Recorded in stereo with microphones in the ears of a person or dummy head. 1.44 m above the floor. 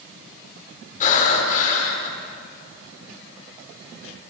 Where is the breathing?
40° left (ahead or behind), 5.5 m.